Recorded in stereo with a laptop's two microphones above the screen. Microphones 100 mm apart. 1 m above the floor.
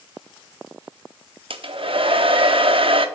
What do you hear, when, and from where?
1.5 s a hair dryer: 60° right (ahead or behind), 0.7 m